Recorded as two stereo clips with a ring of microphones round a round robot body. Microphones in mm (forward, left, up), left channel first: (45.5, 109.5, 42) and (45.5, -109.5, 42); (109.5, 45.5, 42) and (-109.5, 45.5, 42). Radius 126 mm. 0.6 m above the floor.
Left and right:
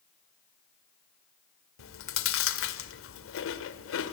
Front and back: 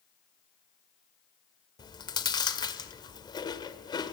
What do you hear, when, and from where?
1.8 s chewing: 70° left, 1.9 m